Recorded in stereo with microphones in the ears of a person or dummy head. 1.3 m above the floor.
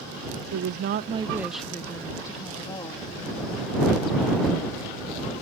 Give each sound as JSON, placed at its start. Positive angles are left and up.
{"t": 0.5, "sound": "a woman speaking", "side_deg": -75}